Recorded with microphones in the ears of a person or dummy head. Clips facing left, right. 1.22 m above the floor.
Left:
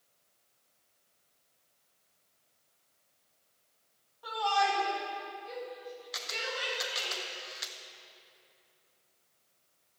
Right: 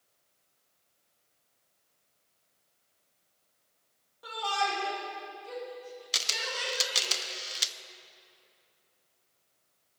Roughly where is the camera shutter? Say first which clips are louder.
Left 1 dB; right.